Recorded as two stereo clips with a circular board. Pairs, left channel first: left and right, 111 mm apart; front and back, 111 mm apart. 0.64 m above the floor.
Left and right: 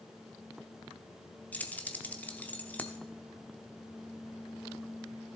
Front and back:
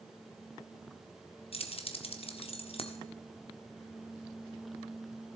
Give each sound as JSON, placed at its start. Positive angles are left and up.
{"t": 1.5, "sound": "keys jangling", "azimuth_deg": 15, "distance_m": 1.0}